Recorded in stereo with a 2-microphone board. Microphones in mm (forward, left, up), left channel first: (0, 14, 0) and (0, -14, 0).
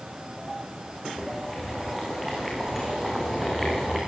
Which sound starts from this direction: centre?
Boiling, at 1.1 s.